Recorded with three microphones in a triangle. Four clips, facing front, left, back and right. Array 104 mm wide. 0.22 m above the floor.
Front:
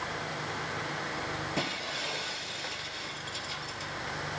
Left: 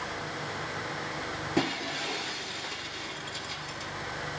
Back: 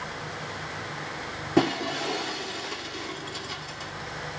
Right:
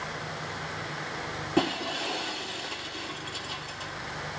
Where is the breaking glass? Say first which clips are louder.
Right 3 dB, back 11 dB; 170° right, 2 m.